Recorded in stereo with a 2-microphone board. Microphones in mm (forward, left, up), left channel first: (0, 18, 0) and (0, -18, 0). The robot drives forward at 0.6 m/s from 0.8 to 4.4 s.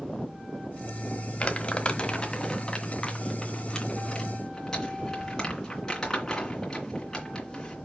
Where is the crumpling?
40° left (ahead or behind), 1.3 m; by 7.8 s 15° left (ahead or behind), 3 m.